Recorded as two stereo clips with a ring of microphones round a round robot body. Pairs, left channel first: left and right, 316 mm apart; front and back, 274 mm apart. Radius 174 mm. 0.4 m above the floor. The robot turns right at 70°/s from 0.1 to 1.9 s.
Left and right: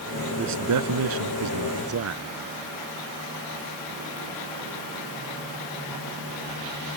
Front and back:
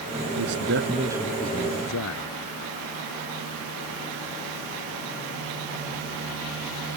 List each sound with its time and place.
0.4 s a man speaking: 150° right; by 2.2 s 45° right